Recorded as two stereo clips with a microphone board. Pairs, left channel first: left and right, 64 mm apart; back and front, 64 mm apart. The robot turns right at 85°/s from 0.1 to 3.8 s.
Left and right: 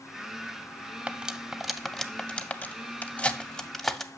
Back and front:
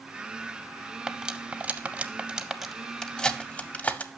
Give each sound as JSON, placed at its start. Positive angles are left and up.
{"t": 1.1, "sound": "cutlery clinking", "azimuth_deg": -60, "distance_m": 0.5}